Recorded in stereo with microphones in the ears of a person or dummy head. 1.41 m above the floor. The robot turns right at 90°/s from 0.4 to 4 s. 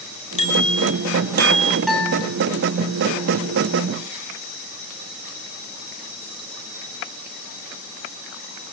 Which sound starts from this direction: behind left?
A bicycle bell, at 0.4 s.